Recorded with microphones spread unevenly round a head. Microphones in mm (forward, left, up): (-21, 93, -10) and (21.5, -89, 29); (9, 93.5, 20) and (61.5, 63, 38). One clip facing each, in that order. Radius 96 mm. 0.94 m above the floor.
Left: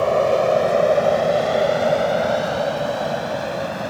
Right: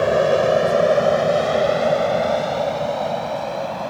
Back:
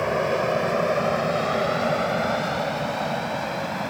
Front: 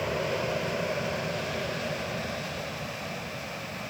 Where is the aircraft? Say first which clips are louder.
Right 1 dB, back 7 dB; 150° right; by 3.9 s 175° left.